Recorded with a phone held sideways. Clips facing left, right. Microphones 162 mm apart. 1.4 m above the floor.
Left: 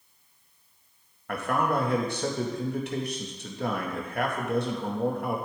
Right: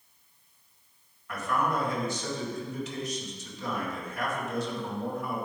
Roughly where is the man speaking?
Left.